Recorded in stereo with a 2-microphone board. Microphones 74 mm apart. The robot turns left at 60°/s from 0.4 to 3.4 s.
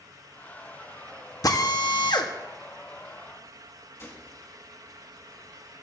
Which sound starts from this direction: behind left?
A drill, at 1.4 s.